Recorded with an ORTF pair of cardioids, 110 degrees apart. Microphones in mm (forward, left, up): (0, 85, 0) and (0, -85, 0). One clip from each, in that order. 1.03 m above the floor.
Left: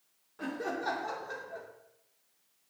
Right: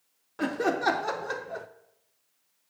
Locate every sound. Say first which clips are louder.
0.4 s laughter: right 9 dB; 55° right, 0.7 m